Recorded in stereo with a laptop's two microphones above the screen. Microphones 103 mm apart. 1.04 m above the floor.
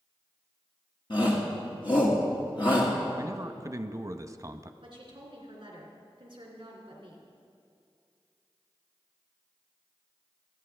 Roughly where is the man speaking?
Right.